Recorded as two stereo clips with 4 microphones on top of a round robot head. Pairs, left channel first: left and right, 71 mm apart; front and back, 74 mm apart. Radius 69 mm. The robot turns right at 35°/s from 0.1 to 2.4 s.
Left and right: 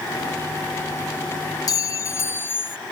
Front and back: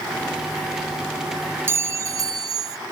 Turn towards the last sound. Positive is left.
turn(degrees=150)